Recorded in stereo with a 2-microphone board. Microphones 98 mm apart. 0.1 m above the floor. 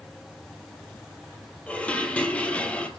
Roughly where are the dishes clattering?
Centre.